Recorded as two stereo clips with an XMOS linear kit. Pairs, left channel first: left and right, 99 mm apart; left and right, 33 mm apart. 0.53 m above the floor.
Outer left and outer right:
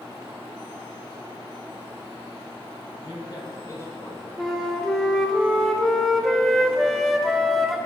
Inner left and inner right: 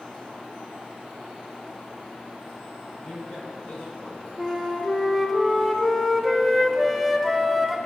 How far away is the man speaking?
About 2 m.